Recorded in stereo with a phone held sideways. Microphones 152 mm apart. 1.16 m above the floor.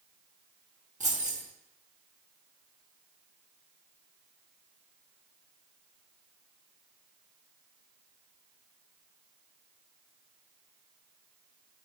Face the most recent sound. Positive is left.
turn(degrees=-60)  # may be behind; listen again after turning